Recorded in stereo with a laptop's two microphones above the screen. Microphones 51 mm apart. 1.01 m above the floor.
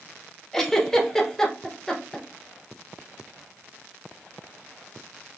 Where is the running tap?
No running tap in this recording.